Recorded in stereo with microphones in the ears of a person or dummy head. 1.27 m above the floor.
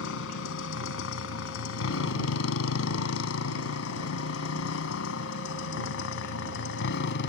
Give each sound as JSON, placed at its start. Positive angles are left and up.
{"t": 0.0, "sound": "a motorcycle", "side_deg": 75}